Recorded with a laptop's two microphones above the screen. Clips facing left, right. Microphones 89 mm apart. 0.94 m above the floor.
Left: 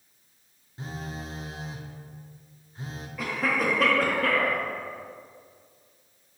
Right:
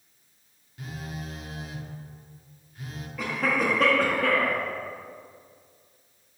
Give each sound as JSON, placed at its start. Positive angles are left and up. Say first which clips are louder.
{"t": 0.8, "sound": "a phone buzzing", "louder": "left 1 dB", "side_deg": 30, "distance_m": 0.6}
{"t": 3.2, "sound": "a cough", "louder": "right 1 dB", "side_deg": 0, "distance_m": 0.7}